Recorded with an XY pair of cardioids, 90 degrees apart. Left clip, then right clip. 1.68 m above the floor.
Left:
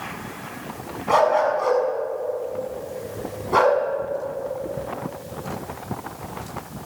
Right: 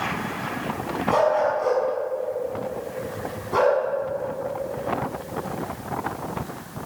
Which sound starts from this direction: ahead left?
A dog barking, at 1.1 s.